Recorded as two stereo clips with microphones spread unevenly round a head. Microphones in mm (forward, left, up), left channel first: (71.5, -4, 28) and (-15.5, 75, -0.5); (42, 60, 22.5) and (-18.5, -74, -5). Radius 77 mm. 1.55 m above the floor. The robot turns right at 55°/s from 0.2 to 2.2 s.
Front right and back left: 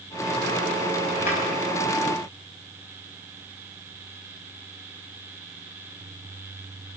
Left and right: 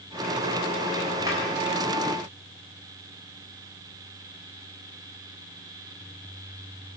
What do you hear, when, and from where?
1.2 s a drawer: 50° right, 6.5 m; by 1.4 s 40° right, 6.5 m